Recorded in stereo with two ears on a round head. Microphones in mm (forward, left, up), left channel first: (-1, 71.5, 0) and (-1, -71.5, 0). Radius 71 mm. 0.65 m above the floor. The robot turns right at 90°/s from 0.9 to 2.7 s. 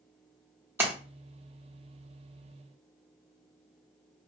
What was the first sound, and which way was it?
A splash, 15° right (ahead or behind).